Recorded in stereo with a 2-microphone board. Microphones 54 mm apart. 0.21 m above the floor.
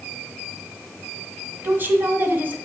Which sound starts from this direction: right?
A woman speaking, at 1.6 s.